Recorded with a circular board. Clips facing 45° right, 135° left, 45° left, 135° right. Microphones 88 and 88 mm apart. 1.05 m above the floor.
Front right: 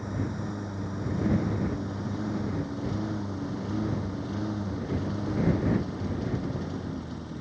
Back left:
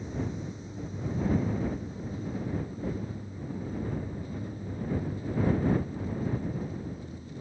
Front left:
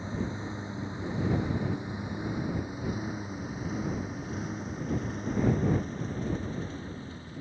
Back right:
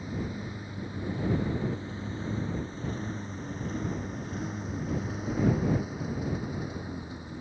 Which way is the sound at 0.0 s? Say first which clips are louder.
Front right 2 dB, front left 1 dB; 20° right.